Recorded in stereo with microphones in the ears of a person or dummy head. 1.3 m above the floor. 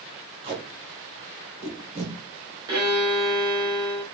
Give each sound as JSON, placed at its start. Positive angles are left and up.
{"t": 0.4, "sound": "tape being pulled", "side_deg": -25, "distance_m": 1.1}
{"t": 2.7, "sound": "a violin", "side_deg": -20, "distance_m": 1.2}